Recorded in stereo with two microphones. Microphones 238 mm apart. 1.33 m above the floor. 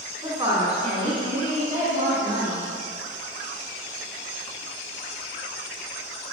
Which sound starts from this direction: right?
A woman speaking, at 0.2 s.